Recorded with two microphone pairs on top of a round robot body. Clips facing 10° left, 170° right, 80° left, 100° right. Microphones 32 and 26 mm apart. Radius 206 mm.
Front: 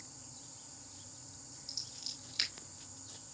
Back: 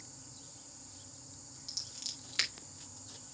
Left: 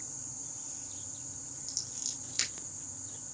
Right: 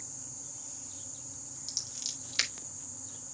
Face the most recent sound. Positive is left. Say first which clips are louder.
# back 1 dB, right 3 dB
turn(degrees=-160)